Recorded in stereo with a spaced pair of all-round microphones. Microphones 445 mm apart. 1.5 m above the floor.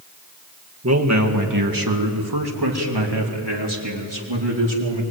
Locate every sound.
0.8 s a man speaking: 35° right (ahead or behind), 1.9 m; by 5.0 s 75° right (ahead or behind), 4.5 m